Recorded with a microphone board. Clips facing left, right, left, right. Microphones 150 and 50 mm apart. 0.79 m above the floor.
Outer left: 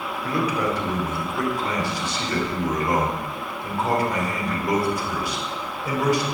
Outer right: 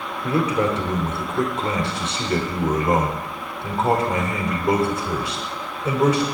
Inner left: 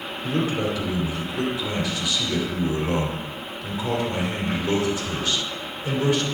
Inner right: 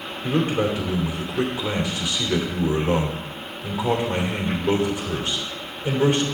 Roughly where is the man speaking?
Right.